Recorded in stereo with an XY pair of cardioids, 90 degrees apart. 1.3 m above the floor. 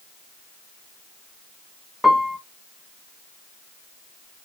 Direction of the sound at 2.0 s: 5° left.